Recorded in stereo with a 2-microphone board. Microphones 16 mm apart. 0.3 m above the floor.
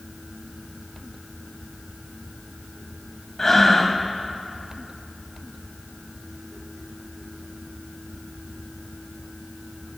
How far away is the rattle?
No rattle in this recording.